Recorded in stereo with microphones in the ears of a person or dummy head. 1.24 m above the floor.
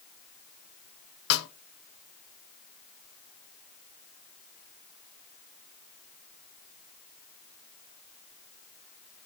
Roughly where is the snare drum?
Left.